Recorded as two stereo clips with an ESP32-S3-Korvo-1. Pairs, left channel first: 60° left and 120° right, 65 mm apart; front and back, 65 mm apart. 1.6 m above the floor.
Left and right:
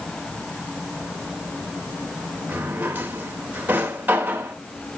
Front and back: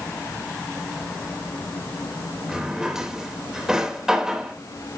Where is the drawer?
105° right, 1.0 m.